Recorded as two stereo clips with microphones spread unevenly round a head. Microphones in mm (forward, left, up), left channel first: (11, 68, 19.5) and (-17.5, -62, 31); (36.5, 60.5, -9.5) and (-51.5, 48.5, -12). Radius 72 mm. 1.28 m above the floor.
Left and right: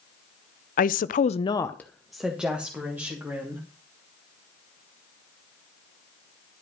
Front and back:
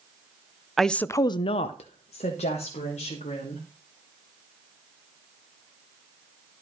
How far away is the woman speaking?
About 0.8 m.